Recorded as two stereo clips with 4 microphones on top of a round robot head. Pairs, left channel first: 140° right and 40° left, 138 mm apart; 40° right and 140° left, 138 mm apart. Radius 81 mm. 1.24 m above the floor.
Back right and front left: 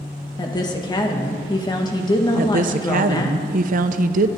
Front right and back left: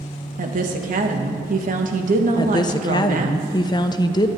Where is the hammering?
No hammering in this recording.